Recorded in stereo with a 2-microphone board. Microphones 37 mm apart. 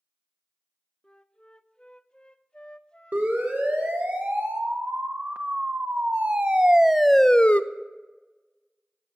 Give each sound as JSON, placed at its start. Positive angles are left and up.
{"t": 1.0, "sound": "a flute", "side_deg": 25, "distance_m": 0.6}
{"t": 3.1, "sound": "a siren", "side_deg": -55, "distance_m": 3.5}